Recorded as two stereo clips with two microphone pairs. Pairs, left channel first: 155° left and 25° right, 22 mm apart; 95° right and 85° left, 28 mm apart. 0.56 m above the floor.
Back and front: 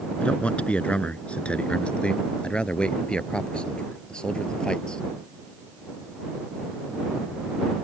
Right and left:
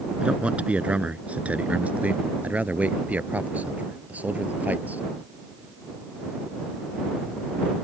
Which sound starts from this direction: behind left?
A man speaking, at 0.2 s.